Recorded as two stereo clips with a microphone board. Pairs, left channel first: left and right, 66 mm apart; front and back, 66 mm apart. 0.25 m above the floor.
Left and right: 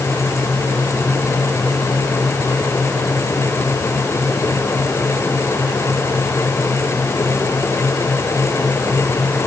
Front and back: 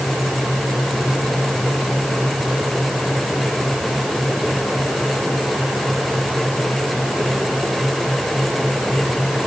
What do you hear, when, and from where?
Only background noise.